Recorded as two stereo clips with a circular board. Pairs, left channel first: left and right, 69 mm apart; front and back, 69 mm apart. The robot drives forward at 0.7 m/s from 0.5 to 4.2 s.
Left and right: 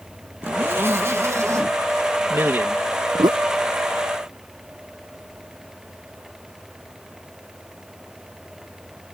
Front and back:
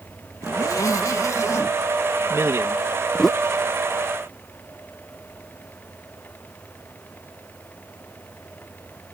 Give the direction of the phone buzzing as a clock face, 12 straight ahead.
No phone buzzing in this recording.